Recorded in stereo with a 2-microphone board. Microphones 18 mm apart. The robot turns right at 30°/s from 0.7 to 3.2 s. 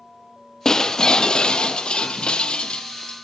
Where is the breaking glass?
40° left, 0.6 m; by 3.1 s 110° left, 0.6 m.